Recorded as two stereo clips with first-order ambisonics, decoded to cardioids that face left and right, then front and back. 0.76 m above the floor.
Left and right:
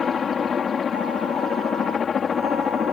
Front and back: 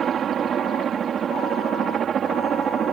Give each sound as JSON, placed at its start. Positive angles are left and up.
{"t": 0.0, "sound": "a helicopter", "azimuth_deg": 145}